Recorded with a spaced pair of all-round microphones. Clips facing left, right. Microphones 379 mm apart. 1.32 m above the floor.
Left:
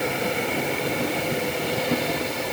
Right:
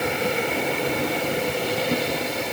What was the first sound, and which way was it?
Only background noise.